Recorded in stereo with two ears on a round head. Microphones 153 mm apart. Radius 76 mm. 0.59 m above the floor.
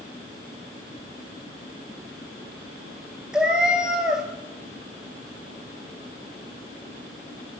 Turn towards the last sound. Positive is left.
turn(degrees=-5)  # may be behind; listen again after turning